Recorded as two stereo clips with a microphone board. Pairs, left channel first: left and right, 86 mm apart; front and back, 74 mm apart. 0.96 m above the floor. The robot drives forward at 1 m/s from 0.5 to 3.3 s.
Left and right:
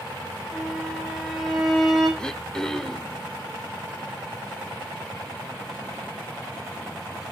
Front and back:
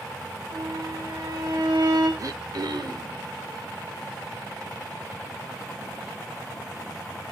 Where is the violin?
175° right, 3 m; by 2.1 s straight behind, 4.5 m.